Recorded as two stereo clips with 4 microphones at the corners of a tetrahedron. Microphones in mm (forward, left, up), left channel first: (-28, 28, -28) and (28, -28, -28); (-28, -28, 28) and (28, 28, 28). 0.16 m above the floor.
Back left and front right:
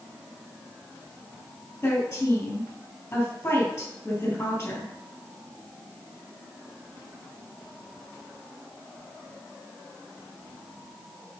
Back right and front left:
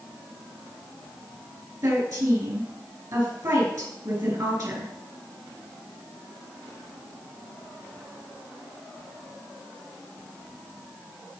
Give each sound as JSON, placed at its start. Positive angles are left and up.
{"t": 1.8, "sound": "a woman speaking", "azimuth_deg": 80, "distance_m": 3.5}